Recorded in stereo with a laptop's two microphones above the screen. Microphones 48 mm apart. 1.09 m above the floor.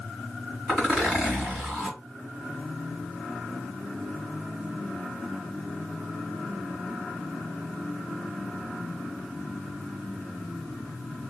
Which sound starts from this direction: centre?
A zipper, at 0.7 s.